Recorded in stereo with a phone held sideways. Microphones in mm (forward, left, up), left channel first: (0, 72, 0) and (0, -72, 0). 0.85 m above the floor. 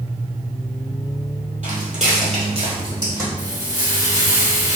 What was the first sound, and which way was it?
Footsteps, 60° right (ahead or behind).